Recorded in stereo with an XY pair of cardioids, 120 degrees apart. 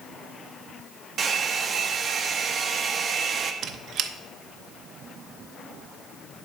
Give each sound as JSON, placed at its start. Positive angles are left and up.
{"t": 1.2, "sound": "a hair dryer", "azimuth_deg": -40, "distance_m": 1.0}
{"t": 3.6, "sound": "a squeak", "azimuth_deg": -60, "distance_m": 0.8}